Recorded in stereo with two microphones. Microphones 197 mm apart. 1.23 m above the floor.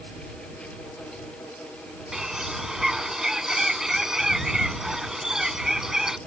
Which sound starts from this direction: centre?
A bird, at 2.1 s.